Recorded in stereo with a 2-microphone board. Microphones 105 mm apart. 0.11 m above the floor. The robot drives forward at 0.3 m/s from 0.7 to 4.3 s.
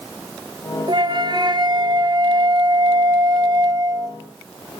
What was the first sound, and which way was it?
A flute, 45° right (ahead or behind).